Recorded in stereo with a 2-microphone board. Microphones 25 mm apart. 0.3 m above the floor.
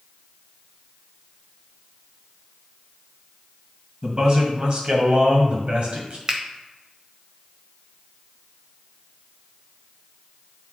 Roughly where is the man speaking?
Right.